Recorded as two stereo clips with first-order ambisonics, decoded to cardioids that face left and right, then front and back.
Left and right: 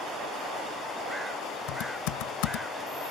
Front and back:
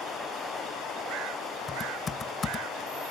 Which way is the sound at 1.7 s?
75° left.